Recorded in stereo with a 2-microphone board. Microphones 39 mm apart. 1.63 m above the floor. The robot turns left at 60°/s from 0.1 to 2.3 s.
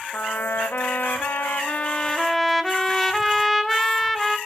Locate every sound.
0.1 s a trumpet: 135° left, 1.1 m; by 4.4 s 5° left, 1.1 m